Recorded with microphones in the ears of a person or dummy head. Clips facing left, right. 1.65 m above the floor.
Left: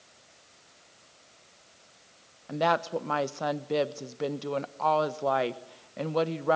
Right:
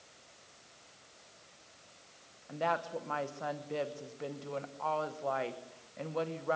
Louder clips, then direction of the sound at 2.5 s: Left 7 dB; 70° left (ahead or behind).